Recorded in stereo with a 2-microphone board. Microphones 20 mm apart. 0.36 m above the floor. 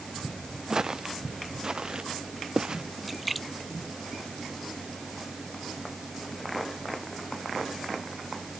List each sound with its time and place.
0.7 s footsteps: 30° right (ahead or behind); by 2.8 s 40° right (ahead or behind)
3.0 s a splash: centre (ahead or behind)